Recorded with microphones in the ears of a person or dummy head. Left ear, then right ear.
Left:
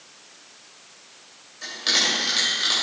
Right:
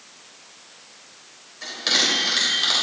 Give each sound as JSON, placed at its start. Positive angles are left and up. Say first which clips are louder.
{"t": 1.6, "sound": "a bell", "louder": "right 1 dB", "side_deg": -5, "distance_m": 3.0}